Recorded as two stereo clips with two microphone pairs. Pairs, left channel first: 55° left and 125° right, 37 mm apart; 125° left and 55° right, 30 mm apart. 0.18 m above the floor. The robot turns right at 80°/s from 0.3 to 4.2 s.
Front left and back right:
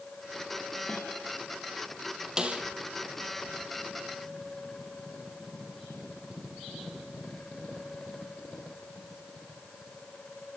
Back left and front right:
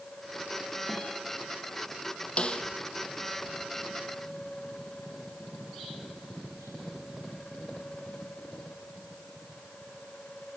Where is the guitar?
20° left, 7 m; by 1.1 s 40° left, 7 m.